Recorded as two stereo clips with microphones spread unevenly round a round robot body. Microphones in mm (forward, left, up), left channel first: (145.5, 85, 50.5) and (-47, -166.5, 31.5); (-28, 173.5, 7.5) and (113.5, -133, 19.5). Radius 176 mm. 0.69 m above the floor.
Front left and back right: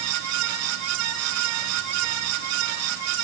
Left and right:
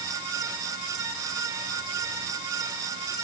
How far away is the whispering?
No whispering in this recording.